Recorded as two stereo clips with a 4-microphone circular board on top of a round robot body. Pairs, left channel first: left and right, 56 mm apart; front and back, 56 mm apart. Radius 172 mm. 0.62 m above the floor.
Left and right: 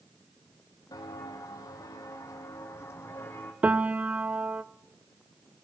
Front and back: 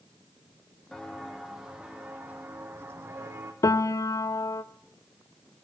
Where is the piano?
25° right, 0.5 m.